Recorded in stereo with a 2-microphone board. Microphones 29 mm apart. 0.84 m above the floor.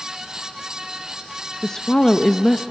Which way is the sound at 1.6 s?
25° left (ahead or behind).